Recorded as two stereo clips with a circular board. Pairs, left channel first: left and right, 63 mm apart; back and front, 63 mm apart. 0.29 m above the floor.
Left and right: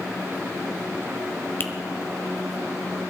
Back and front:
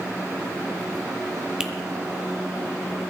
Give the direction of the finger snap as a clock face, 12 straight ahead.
10 o'clock.